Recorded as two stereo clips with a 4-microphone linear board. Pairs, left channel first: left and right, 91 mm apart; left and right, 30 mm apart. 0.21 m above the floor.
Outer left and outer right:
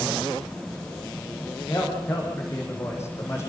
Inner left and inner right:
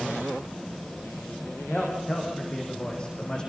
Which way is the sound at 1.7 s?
35° left (ahead or behind).